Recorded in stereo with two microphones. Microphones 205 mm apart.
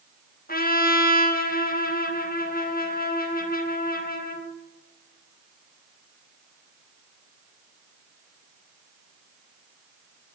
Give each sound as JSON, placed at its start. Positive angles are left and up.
{"t": 0.5, "sound": "a trumpet", "side_deg": 45, "distance_m": 0.6}